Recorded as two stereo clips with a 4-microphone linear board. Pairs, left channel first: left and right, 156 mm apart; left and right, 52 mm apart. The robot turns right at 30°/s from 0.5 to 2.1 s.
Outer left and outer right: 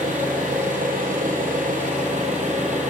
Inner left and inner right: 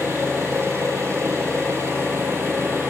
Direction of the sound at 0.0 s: 115° right.